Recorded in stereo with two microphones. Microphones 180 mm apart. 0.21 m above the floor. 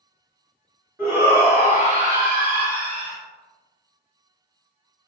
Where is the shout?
15° right (ahead or behind), 1.0 m; by 3.2 s 60° right (ahead or behind), 2 m.